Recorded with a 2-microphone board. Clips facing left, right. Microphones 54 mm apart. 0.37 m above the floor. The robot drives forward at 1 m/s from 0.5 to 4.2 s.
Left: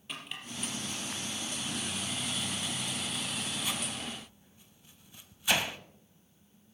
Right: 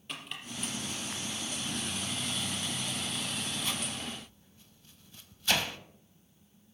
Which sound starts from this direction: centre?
Chopping, at 0.1 s.